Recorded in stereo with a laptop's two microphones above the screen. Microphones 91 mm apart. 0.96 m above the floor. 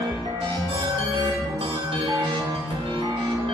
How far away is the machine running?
About 0.9 m.